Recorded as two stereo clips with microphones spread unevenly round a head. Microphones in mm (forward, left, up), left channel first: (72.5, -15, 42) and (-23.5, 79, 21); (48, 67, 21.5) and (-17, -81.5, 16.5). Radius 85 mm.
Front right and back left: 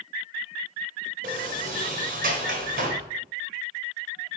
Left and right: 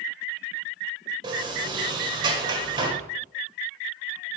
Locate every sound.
1.2 s a sliding door: straight behind, 1.3 m